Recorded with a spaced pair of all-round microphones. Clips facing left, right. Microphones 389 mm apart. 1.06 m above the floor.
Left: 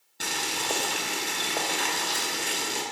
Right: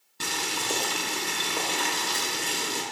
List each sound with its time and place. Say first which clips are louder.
0.2 s boiling: right 1 dB; 10° right (ahead or behind), 0.9 m